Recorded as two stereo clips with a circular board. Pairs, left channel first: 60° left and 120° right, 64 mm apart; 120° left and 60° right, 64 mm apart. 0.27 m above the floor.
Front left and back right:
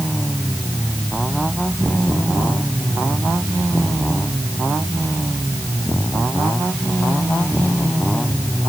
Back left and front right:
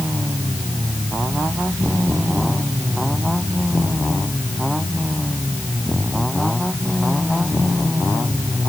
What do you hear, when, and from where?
Only background noise.